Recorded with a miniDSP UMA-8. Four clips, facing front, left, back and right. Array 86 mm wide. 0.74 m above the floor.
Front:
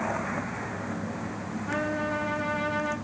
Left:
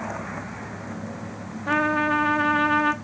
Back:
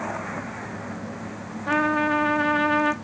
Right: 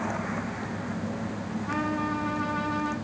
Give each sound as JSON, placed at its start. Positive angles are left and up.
{"t": 1.7, "sound": "a trumpet", "azimuth_deg": 130, "distance_m": 0.6}